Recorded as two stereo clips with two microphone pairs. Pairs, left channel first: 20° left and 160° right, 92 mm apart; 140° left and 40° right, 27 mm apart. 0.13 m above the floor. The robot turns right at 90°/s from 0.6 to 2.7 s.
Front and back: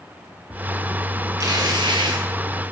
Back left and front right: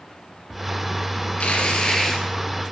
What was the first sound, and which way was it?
Tearing paper, 155° left.